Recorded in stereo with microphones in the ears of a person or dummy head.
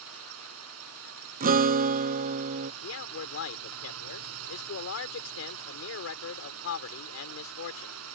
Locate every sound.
0.0 s a drone: 85° right
1.4 s a guitar: 45° right (ahead or behind)
2.8 s a man speaking: 85° left